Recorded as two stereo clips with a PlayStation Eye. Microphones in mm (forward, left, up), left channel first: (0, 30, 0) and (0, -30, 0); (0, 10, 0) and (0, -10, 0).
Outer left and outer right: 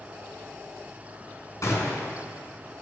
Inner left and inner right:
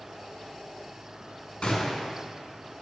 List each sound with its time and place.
1.6 s a gunshot: 60° left (ahead or behind), 3.5 m